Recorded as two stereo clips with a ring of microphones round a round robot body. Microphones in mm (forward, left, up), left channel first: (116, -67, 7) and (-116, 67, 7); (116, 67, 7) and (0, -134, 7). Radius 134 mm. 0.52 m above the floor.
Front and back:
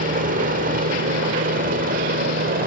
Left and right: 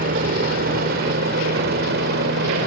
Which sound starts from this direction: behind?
A helicopter, at 0.0 s.